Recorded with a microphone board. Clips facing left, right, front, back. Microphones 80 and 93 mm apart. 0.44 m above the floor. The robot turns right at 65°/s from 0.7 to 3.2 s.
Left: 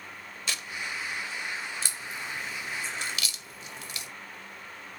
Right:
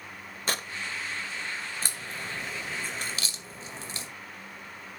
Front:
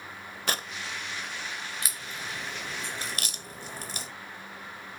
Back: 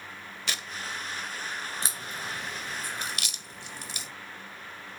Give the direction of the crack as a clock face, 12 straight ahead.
4 o'clock.